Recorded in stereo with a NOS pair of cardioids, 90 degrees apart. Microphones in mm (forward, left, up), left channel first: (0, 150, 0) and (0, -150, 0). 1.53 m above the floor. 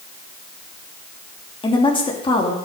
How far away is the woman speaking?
About 3 m.